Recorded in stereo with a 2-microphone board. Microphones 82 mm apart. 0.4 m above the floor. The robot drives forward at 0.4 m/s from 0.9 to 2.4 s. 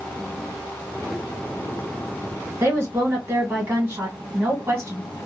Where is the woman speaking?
35° right (ahead or behind), 1.2 m.